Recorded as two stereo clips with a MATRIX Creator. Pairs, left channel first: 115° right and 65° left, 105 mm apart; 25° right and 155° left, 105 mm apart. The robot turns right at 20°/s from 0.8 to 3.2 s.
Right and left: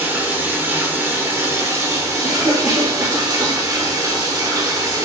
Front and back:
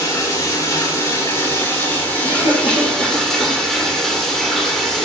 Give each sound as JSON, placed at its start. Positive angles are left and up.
{"t": 0.0, "sound": "running water", "azimuth_deg": 10, "distance_m": 1.3}
{"t": 2.2, "sound": "a cough", "azimuth_deg": -15, "distance_m": 3.0}